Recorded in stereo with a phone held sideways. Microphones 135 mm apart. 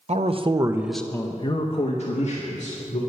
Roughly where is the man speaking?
Right.